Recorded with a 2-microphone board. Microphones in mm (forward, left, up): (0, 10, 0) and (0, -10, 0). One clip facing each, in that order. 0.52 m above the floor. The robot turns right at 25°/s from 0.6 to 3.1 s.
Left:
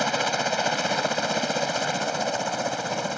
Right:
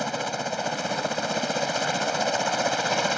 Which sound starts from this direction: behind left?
A helicopter, at 0.0 s.